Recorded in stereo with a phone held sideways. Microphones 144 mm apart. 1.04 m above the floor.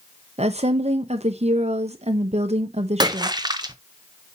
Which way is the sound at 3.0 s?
30° right (ahead or behind).